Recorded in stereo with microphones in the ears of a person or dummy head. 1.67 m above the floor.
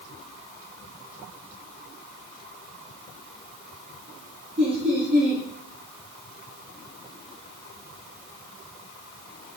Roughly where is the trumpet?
No trumpet in this recording.